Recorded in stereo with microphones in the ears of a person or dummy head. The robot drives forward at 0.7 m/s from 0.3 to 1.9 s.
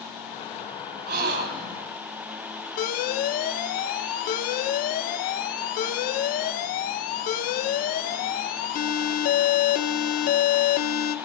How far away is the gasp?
About 3.5 m.